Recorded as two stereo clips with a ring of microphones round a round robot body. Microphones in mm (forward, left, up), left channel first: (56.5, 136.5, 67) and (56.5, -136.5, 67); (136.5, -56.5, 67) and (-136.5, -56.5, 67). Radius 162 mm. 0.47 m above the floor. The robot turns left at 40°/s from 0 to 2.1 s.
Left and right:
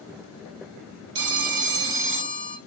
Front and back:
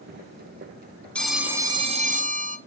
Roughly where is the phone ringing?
Right.